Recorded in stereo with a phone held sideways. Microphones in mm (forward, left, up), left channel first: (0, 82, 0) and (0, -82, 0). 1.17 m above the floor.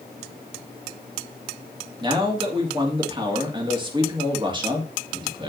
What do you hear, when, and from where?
2.0 s a man speaking: 30° right (ahead or behind), 1.8 m